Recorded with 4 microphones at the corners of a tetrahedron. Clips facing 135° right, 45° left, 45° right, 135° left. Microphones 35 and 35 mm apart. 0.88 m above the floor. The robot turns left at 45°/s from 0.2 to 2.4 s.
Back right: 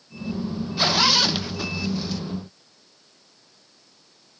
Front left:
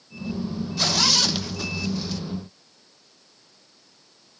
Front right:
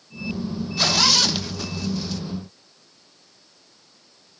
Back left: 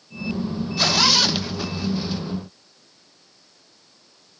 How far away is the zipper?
About 1.0 m.